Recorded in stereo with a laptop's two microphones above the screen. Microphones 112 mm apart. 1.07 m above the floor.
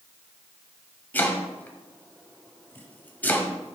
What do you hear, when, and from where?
1.1 s chopping: 15° left (ahead or behind), 1.3 m